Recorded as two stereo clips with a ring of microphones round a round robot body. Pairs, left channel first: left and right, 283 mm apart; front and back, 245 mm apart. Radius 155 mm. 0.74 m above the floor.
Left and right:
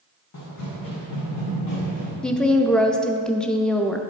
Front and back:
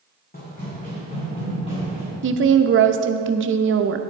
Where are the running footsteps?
55° left, 3 m; by 2.1 s 70° left, 4 m.